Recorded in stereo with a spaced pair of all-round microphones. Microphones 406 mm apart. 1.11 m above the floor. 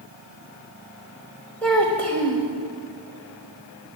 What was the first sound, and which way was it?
A child speaking, 5° left (ahead or behind).